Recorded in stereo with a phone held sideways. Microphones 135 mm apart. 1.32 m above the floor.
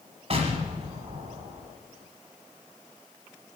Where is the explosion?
45° right (ahead or behind), 1.7 m.